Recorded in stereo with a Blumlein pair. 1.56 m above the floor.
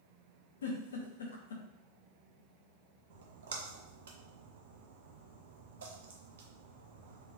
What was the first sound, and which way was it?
A giggle, 65° left.